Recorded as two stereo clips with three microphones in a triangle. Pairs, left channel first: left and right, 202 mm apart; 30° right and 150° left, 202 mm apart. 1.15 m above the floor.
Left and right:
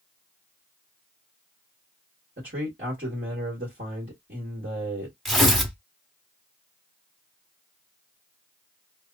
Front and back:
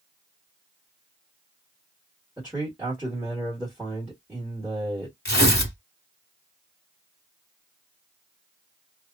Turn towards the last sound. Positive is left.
turn(degrees=0)